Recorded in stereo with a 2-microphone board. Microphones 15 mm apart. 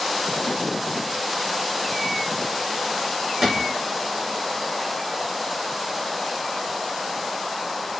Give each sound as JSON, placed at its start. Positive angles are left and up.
{"t": 3.4, "sound": "a gunshot", "side_deg": -30, "distance_m": 1.3}